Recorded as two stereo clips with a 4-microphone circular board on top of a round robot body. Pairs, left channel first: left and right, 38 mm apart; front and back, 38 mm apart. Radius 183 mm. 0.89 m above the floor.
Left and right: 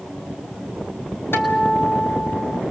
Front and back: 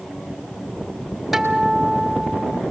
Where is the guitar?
90° left, 4.5 m.